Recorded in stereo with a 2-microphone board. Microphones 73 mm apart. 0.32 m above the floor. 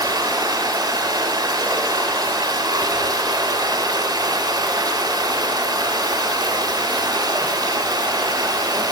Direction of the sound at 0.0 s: 70° right (ahead or behind).